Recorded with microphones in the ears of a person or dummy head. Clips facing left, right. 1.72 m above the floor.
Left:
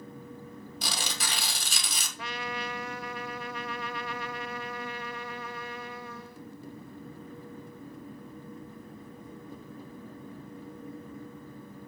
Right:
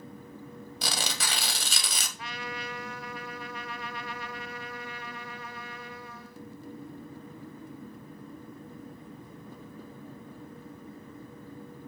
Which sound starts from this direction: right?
Tearing paper, at 0.8 s.